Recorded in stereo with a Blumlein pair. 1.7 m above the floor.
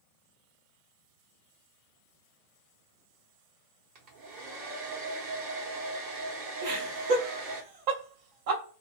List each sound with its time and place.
4.0 s a hair dryer: 40° right, 0.8 m
6.6 s laughter: 45° right, 0.6 m